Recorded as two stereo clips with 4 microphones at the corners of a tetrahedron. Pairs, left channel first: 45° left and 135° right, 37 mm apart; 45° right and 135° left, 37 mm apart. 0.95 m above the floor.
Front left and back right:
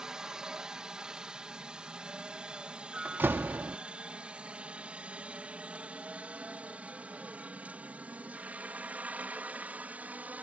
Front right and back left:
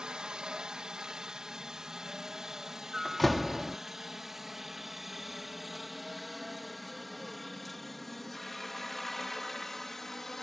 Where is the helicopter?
175° left; by 10.4 s 125° right.